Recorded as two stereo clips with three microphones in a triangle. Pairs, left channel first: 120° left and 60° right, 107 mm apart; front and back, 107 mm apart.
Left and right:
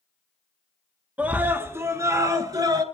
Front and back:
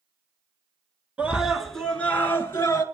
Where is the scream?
120° right, 1.5 m; by 2.8 s 45° right, 1.9 m.